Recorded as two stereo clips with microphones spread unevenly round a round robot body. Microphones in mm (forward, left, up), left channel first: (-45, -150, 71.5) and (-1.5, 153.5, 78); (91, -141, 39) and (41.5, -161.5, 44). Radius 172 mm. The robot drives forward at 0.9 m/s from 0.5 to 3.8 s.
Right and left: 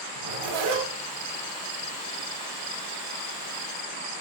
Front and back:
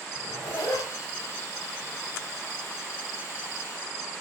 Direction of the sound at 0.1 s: 75° left.